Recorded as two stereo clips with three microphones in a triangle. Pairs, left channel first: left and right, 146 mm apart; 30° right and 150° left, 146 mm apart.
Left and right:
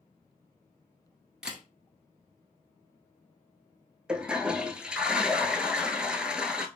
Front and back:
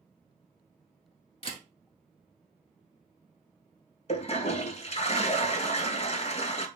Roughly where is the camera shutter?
Ahead.